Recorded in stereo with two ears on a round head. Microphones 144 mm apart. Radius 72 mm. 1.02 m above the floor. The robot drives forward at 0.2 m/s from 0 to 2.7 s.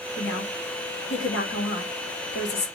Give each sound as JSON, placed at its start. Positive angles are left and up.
{"t": 0.2, "sound": "a woman speaking", "side_deg": 80, "distance_m": 1.3}